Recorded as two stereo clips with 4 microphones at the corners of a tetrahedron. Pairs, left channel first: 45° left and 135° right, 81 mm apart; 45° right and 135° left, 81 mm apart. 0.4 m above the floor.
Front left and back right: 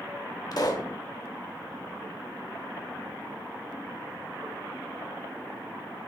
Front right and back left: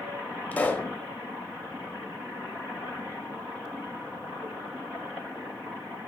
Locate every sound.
0.5 s a pop: 20° left, 1.0 m